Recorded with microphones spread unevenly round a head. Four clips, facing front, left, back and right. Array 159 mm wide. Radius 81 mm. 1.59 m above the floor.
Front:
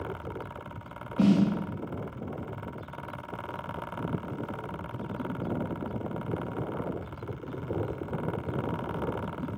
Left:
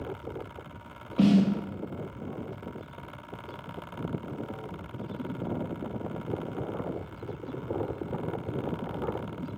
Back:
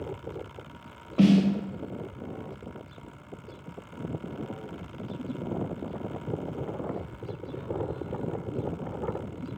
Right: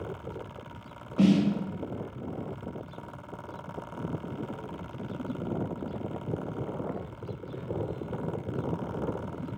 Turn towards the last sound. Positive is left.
turn(degrees=-175)